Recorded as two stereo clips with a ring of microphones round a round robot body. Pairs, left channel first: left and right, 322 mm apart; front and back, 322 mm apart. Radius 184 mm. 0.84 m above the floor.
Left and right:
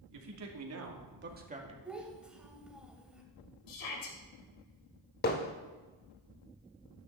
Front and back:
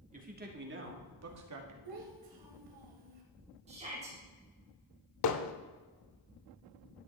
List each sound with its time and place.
0.1 s a man speaking: 115° right, 3 m; by 1.8 s 165° right, 2 m
1.9 s a child speaking: 175° right, 3 m
3.7 s a shout: 110° left, 3.5 m
5.2 s hammering: 30° left, 0.7 m